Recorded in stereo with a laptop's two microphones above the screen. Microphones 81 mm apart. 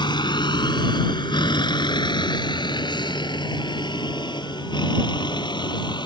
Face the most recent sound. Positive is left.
turn(degrees=80)